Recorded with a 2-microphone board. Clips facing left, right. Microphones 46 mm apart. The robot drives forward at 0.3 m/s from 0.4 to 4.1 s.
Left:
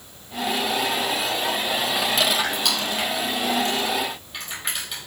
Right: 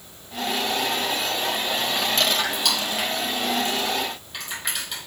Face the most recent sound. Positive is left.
turn(degrees=5)  # may be behind; listen again after turning